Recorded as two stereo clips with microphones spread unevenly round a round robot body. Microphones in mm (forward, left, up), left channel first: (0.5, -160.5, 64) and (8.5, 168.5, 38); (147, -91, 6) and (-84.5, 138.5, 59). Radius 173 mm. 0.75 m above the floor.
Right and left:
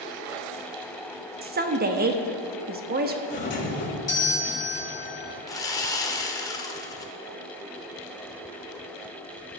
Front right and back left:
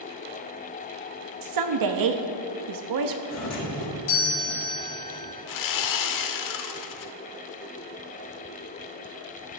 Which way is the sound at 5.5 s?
10° right.